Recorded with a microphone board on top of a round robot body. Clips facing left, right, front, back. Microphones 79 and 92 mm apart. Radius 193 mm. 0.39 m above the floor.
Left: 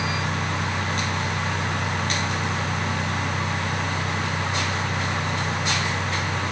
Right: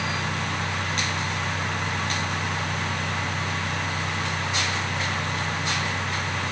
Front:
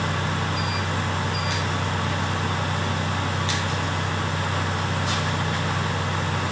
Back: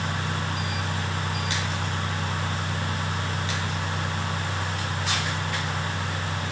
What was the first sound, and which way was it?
Only background noise.